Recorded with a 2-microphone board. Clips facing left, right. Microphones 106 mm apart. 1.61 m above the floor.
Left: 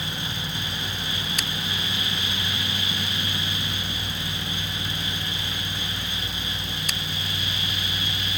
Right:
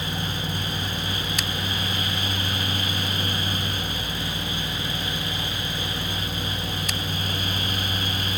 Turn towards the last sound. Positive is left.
No sound to turn to.